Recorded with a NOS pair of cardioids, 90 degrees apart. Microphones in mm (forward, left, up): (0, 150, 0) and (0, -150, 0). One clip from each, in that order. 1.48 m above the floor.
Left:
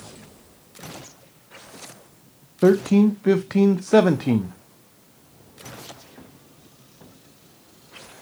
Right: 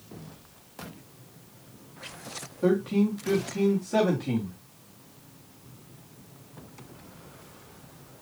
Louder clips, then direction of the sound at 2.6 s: Left 8 dB; 65° left.